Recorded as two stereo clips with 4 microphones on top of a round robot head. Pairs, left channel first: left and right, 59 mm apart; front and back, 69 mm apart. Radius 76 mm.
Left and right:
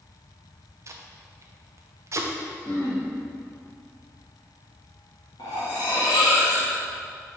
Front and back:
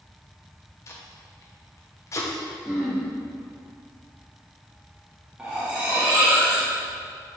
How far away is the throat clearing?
About 1.1 m.